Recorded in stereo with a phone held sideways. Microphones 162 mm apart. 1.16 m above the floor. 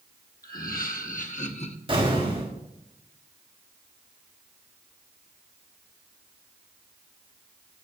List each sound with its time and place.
0.4 s laughter: 65° left (ahead or behind), 1.5 m; by 1.8 s 40° left (ahead or behind), 0.9 m
1.9 s an explosion: 35° right (ahead or behind), 4 m